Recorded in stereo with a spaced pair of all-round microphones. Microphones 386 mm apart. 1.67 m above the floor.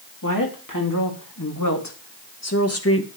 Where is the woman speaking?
55° left (ahead or behind), 3 m; by 3.1 s 35° left (ahead or behind), 1.4 m.